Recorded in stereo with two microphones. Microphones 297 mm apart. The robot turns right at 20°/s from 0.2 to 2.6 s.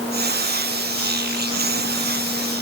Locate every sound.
Only background noise.